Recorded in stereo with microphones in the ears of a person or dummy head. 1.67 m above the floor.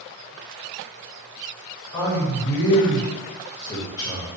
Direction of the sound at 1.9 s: 20° left (ahead or behind).